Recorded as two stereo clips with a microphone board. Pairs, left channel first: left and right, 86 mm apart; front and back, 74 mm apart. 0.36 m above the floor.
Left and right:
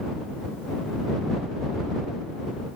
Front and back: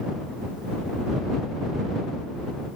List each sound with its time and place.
Only background noise.